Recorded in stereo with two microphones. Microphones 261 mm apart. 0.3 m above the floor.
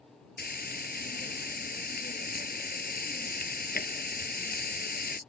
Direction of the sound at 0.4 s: 35° left (ahead or behind).